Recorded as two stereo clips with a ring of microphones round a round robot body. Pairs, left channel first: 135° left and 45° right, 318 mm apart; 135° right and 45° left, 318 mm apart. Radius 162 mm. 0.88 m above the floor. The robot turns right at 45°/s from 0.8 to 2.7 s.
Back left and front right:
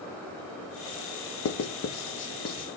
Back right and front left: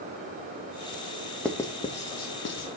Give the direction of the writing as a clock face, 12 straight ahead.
7 o'clock.